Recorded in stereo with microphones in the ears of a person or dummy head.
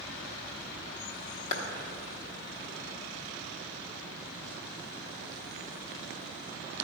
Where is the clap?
45° left (ahead or behind), 1.1 m.